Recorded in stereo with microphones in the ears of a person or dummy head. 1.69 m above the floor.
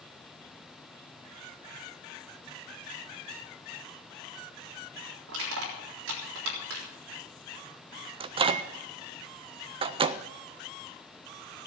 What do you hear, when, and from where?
5.3 s crushing: 75° right (ahead or behind), 3.5 m
8.2 s a microwave: 30° right (ahead or behind), 0.6 m